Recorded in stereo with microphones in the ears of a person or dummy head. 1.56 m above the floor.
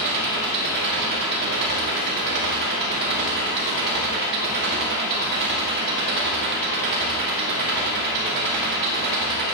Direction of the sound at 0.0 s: 55° right (ahead or behind).